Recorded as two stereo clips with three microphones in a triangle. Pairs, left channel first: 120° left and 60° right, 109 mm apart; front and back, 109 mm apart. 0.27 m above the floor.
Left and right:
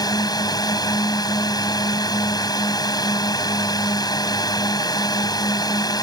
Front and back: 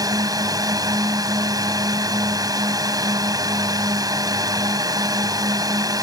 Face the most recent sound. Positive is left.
turn(degrees=145)